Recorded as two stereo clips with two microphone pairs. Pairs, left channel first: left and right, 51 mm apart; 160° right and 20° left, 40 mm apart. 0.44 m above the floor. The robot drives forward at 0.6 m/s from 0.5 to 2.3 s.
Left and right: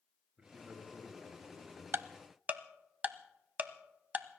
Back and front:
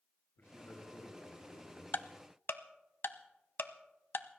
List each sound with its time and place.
0.4 s a man speaking: 155° right, 6 m
1.9 s ticking: 130° right, 0.5 m; by 4.3 s 145° right, 0.7 m